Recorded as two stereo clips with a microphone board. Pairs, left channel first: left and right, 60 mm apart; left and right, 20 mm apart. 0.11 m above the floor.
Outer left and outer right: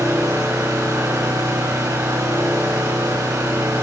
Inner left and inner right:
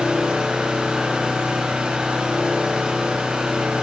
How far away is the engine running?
About 7 m.